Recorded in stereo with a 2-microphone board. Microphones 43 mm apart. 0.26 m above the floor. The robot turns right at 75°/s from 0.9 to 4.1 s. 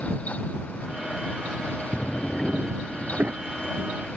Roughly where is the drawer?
Behind left.